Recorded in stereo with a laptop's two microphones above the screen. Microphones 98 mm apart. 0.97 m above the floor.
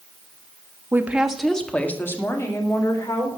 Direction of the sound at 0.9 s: 25° right (ahead or behind).